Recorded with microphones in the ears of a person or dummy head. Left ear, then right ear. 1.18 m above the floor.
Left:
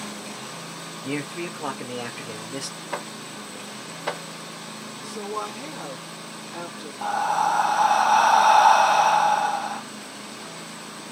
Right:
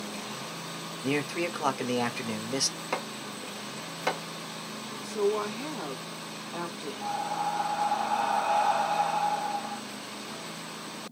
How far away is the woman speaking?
About 1.6 m.